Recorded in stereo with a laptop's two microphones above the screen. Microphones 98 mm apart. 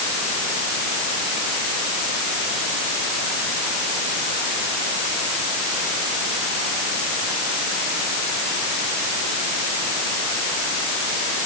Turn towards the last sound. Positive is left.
No sound to turn to.